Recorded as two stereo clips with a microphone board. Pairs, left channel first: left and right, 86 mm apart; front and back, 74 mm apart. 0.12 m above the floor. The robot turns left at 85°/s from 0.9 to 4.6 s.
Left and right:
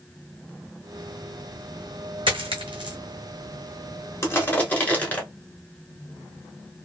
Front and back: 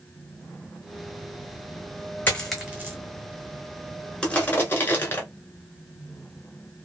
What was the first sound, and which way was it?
A dropped coin, 70° right.